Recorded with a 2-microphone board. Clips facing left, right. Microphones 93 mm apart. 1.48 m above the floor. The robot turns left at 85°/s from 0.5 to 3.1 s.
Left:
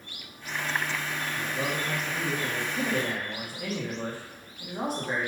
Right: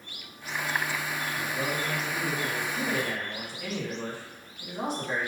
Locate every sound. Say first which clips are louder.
1.4 s a man speaking: left 1 dB; 170° right, 1.8 m; by 5.3 s 40° left, 1.8 m